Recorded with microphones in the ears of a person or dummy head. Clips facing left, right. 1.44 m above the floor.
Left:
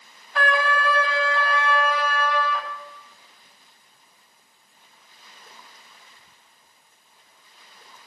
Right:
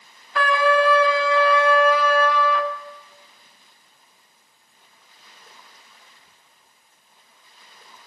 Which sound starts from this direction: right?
A trumpet, at 0.3 s.